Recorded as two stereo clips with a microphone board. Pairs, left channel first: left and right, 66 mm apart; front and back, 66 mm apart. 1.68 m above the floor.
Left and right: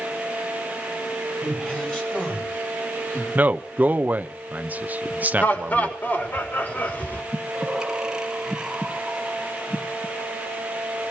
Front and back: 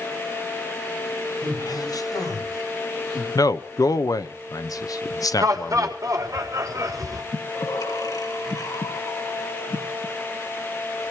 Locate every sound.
1.4 s a man speaking: 15° left, 8 m; by 3.2 s 20° left, 9 m
3.4 s a man speaking: 25° right, 1.1 m
5.4 s laughter: 150° left, 4 m
7.3 s breathing: 10° right, 2.5 m